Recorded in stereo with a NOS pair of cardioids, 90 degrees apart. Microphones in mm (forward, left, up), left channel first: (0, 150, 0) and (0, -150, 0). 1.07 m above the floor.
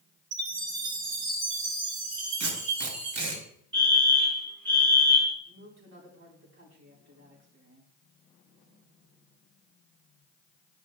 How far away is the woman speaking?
About 3.5 m.